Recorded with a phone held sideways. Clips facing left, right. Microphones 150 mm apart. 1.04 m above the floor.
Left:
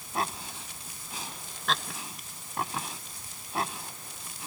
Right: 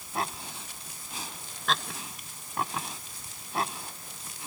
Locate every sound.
Only background noise.